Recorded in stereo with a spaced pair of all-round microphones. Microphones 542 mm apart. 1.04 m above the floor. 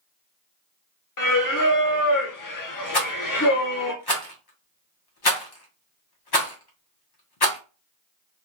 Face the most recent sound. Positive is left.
turn(degrees=45)  # may be behind; listen again after turning